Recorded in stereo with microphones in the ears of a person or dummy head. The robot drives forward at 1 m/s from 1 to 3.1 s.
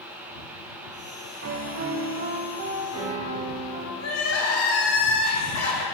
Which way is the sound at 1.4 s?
70° right (ahead or behind).